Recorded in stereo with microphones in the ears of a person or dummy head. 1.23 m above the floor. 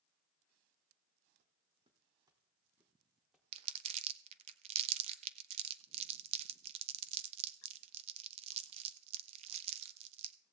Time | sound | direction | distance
1.4 | footsteps | 45° right (ahead or behind) | 3 m
3.5 | crumpling | 40° right (ahead or behind) | 1.1 m